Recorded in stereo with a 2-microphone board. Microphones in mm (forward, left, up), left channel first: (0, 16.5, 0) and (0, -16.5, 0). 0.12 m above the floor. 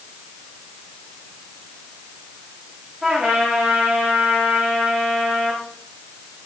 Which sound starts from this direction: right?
A trumpet, at 3.0 s.